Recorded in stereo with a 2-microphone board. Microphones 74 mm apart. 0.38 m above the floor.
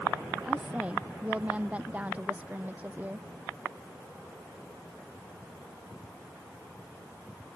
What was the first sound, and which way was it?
A woman speaking, 15° right (ahead or behind).